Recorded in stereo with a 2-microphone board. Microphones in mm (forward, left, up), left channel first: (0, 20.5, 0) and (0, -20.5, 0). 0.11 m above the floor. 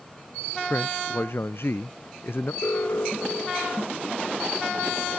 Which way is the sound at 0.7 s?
65° left (ahead or behind).